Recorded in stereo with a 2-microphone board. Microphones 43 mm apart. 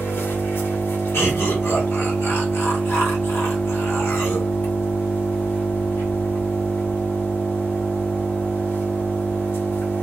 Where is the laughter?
70° left (ahead or behind), 1.4 m.